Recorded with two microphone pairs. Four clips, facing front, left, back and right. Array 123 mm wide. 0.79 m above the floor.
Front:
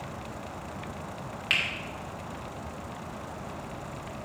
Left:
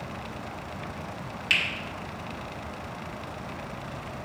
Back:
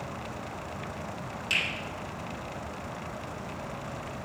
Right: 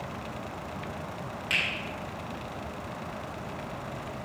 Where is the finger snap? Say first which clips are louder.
Left 3 dB, front 2 dB; 10° left, 2.5 m.